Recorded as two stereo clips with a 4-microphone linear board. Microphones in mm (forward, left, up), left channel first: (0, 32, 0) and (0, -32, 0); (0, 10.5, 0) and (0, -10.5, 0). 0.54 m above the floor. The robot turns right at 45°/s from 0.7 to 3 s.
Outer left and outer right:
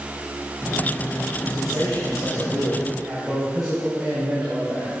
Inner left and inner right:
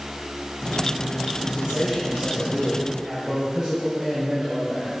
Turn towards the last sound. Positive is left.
turn(degrees=-20)